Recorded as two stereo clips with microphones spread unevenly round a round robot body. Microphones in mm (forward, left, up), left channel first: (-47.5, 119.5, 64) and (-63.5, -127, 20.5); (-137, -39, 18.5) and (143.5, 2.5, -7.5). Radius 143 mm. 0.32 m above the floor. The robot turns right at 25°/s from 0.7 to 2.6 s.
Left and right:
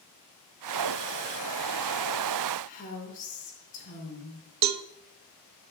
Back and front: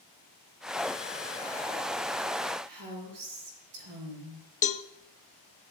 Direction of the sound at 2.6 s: 20° left.